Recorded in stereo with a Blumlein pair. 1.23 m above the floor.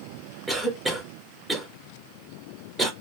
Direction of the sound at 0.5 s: 10° right.